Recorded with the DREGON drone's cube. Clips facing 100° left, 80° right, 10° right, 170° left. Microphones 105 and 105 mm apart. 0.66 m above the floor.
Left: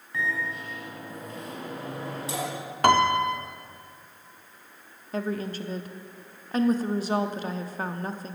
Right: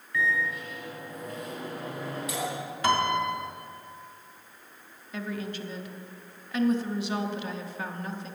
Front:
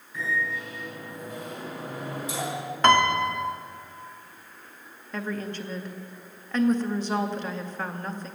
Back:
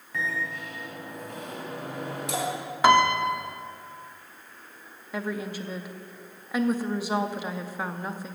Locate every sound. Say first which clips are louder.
0.1 s a microwave: right 2 dB, front 2 dB; 160° left, 3.5 m
2.8 s a piano: left 5 dB, back 1 dB; 85° left, 0.8 m
5.1 s a woman speaking: left 4 dB, even; 95° left, 0.7 m